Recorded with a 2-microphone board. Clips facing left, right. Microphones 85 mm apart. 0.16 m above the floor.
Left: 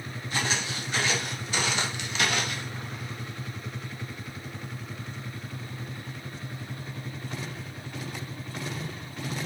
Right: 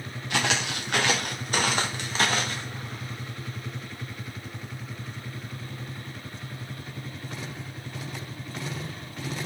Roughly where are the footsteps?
Right.